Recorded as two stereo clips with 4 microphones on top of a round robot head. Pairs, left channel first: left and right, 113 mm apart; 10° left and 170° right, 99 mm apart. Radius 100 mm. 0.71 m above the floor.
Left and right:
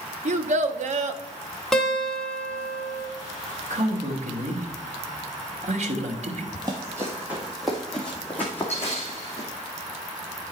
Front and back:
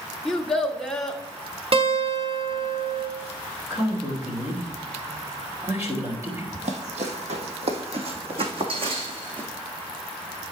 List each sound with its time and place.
0.2 s a child speaking: 75° right, 0.9 m
1.7 s a guitar: straight behind, 2 m
3.7 s a man speaking: 105° right, 2.5 m
6.5 s running footsteps: 150° right, 1.5 m; by 9.5 s 155° left, 2.5 m